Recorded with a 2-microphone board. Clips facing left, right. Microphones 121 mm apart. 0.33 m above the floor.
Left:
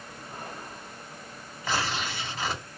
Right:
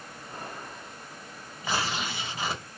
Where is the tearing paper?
15° right (ahead or behind), 2.5 m.